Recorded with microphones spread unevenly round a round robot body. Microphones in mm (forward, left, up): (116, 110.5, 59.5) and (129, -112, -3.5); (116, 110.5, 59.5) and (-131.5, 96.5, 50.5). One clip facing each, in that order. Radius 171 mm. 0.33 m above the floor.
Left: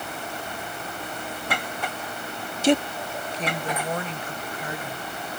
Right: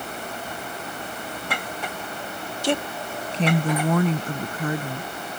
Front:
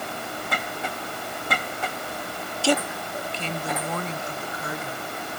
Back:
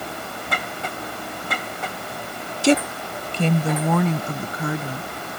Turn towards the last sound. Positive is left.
turn(degrees=-135)